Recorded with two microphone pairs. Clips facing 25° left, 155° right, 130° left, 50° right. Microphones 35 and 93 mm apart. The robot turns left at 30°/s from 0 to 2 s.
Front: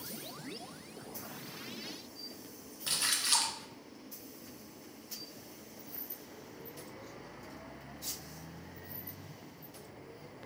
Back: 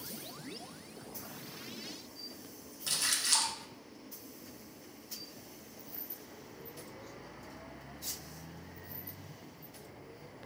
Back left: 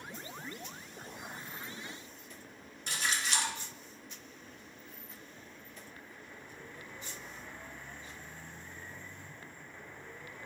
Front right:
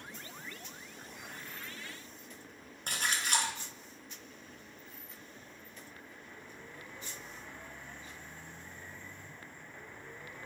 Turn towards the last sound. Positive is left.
turn(degrees=-40)